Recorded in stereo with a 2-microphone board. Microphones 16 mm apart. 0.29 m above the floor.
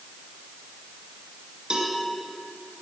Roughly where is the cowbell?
Right.